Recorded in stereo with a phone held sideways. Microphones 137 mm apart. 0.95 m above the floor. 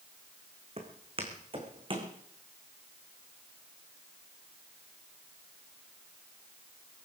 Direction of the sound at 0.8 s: 45° right (ahead or behind).